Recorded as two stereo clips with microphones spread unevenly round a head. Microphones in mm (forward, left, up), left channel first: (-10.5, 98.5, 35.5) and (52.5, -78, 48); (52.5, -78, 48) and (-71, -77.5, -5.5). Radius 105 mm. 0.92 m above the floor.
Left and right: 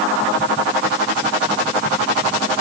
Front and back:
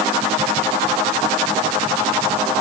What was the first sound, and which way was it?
Only background noise.